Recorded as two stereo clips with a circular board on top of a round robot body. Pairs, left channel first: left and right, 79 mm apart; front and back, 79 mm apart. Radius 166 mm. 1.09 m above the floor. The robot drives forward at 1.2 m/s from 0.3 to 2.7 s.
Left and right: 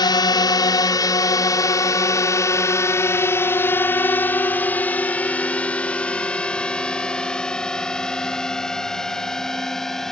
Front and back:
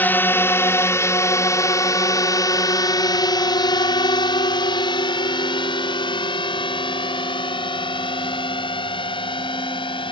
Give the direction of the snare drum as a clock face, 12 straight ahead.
I don't hear a snare drum.